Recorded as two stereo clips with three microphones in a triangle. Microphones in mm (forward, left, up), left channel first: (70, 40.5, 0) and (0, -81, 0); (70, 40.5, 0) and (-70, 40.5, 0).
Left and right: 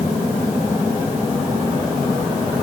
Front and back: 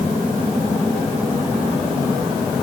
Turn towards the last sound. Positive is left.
No sound to turn to.